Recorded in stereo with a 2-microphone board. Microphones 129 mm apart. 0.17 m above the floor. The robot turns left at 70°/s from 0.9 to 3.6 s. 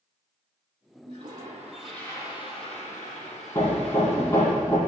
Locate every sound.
1.1 s a toilet flushing: 130° right, 5.5 m; by 4.5 s 55° left, 5.5 m
3.5 s hammering: 25° left (ahead or behind), 4.5 m; by 4.8 s 20° left (ahead or behind), 4.5 m